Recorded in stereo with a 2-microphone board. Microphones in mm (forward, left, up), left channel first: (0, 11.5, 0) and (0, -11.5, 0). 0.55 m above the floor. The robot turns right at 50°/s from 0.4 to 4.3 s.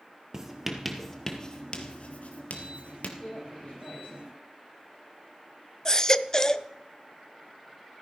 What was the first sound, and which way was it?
Writing, 25° right (ahead or behind).